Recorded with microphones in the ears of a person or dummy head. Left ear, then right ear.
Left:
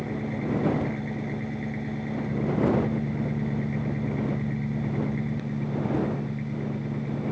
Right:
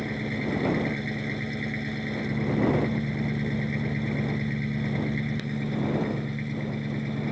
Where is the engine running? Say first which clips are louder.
Right 1 dB; 25° right (ahead or behind).